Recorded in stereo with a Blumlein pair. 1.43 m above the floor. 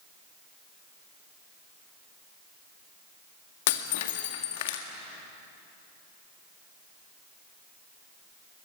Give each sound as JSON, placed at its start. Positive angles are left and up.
{"t": 3.7, "sound": "breaking glass", "azimuth_deg": 50, "distance_m": 1.8}